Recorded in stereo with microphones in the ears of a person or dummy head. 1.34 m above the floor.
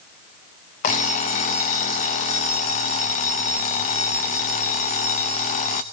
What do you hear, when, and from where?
0.8 s an alarm clock: 30° left (ahead or behind), 0.7 m